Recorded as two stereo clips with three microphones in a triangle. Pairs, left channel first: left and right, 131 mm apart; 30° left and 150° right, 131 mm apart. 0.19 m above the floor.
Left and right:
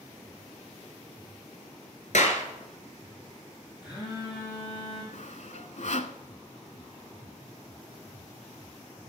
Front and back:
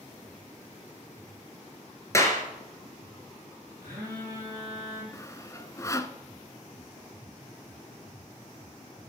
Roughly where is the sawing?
Left.